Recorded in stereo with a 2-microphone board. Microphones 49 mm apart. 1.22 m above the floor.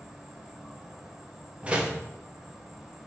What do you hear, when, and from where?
0.0 s an insect: 10° right (ahead or behind), 1.0 m
1.6 s a door slam: 25° right (ahead or behind), 1.0 m